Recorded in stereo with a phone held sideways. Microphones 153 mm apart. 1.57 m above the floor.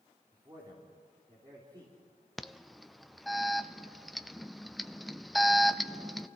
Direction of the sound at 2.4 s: Centre (ahead or behind).